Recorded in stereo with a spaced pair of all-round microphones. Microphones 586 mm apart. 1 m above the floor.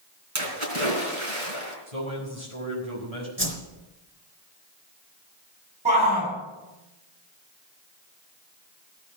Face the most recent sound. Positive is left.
turn(degrees=-10)  # may be behind; listen again after turning